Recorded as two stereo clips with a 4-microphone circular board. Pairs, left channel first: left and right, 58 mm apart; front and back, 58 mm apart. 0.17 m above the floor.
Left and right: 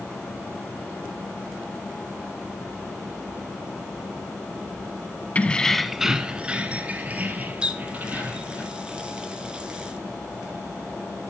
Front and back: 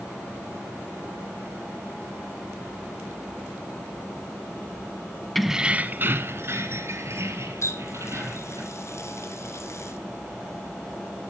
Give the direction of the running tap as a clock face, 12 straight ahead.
1 o'clock.